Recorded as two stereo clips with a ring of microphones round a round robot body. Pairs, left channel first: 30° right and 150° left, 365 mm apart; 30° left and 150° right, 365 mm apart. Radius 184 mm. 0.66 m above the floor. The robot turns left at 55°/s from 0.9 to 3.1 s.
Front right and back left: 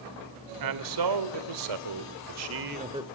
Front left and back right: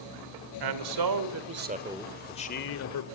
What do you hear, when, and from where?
0.6 s a man speaking: 175° right, 2.0 m; by 3.0 s 65° left, 2.0 m